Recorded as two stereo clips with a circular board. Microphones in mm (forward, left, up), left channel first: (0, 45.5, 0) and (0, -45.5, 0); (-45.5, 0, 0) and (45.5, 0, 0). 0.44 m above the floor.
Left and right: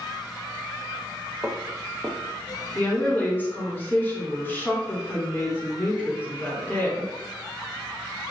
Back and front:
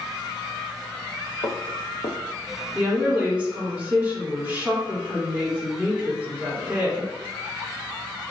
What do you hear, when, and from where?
1.4 s footsteps: 155° right, 0.8 m
2.8 s a woman speaking: 55° left, 1.2 m